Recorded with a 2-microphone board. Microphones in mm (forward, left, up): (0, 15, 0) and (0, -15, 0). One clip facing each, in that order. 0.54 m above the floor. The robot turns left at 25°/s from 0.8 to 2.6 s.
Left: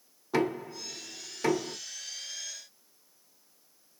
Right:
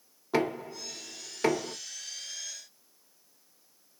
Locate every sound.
0.3 s knocking: 15° right (ahead or behind), 1.8 m; by 1.8 s 35° right (ahead or behind), 1.8 m